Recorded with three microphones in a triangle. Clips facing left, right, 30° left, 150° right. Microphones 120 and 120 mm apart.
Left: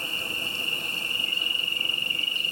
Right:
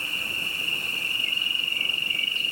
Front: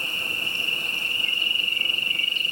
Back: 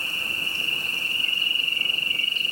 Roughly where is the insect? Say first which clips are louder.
Left 1 dB, front 1 dB; behind.